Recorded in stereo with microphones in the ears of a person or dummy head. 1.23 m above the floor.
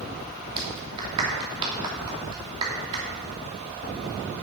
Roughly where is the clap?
Right.